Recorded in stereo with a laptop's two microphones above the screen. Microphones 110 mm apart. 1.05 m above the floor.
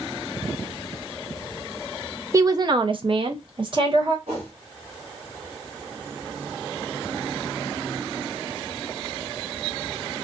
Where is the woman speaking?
30° right (ahead or behind), 0.5 m; by 4.2 s 45° right (ahead or behind), 1.0 m.